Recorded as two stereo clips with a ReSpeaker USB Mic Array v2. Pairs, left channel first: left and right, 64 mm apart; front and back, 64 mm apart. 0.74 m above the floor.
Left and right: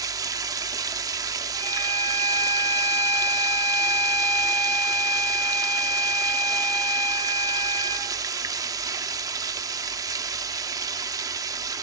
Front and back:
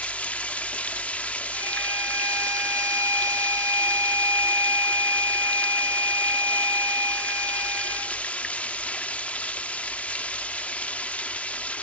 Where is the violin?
145° left, 3.5 m.